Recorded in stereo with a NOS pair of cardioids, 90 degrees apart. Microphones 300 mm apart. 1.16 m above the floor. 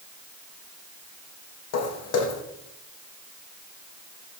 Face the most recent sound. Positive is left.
turn(degrees=65)